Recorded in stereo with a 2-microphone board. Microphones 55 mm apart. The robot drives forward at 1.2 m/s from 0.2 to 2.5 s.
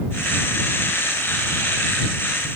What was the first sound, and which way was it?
Only background noise.